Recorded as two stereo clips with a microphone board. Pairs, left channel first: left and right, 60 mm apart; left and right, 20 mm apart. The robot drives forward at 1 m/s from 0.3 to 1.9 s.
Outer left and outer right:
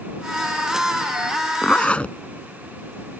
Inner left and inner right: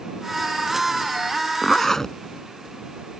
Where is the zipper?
25° left (ahead or behind); by 2.2 s 20° left (ahead or behind).